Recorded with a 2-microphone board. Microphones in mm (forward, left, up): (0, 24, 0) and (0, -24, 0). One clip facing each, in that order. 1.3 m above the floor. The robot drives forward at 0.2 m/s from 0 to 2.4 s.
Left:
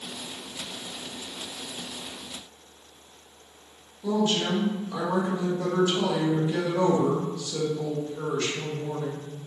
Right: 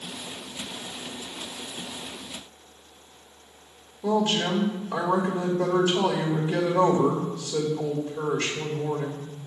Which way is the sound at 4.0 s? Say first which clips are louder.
Right 1 dB; 30° right (ahead or behind).